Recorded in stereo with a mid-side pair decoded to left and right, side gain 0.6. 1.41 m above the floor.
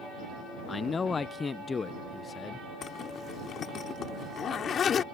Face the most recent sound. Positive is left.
turn(degrees=40)